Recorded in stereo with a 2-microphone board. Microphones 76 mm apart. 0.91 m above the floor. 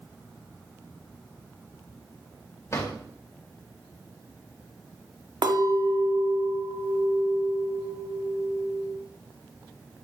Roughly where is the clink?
Right.